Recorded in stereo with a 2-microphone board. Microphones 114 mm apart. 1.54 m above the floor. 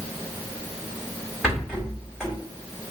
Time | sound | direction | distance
1.4 | a rattle | 10° right (ahead or behind) | 1.8 m